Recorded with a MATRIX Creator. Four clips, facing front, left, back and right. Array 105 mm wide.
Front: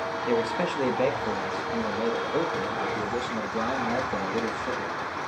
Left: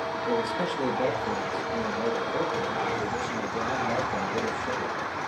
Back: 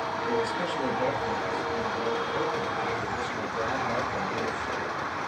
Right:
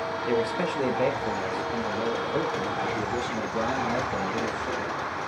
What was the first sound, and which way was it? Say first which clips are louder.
A man speaking: right 2 dB, front 4 dB; 40° right.